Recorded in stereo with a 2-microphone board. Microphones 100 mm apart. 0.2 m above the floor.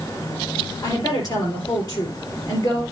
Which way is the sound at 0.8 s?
40° left (ahead or behind).